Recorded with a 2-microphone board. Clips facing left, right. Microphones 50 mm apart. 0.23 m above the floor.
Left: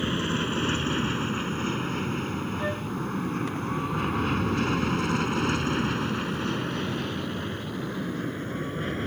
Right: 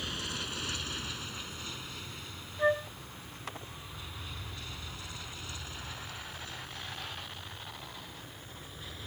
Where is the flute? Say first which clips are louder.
Right 7 dB; 25° right (ahead or behind).